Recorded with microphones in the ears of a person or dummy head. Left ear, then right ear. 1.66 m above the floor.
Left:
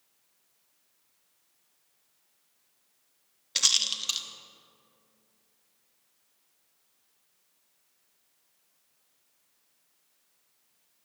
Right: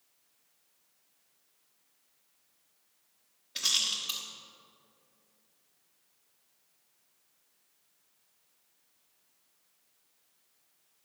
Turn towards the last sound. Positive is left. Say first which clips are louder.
# left 4 dB
turn(degrees=40)  # may be behind; listen again after turning